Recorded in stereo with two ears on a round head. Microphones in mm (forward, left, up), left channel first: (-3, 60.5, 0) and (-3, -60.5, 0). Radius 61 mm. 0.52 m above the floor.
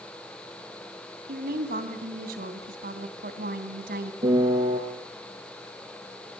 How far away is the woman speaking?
About 3 m.